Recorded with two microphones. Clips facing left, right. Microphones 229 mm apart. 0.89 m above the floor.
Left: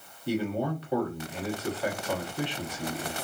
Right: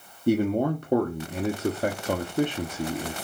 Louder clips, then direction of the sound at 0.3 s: Right 7 dB; 50° right (ahead or behind).